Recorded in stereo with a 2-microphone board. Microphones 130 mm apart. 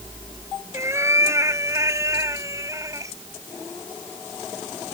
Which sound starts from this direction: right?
A cat meowing, at 0.7 s.